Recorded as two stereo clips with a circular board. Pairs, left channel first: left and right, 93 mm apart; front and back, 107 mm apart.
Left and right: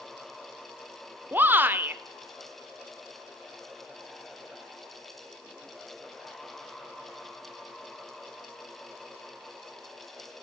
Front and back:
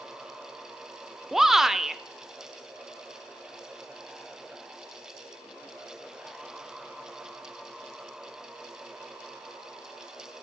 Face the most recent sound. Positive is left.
turn(degrees=-100)